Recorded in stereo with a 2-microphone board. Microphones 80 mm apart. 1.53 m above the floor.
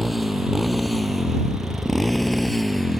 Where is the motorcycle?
Centre (ahead or behind).